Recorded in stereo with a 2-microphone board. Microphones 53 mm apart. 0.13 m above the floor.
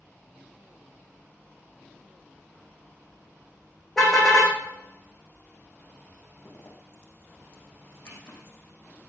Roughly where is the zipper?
Left.